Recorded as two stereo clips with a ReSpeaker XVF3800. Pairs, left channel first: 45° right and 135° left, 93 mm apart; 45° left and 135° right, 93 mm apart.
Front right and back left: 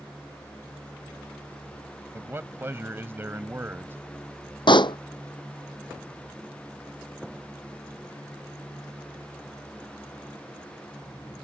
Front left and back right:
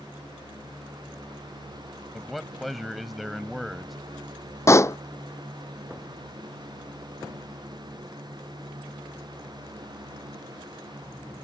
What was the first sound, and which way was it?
A man speaking, 135° left.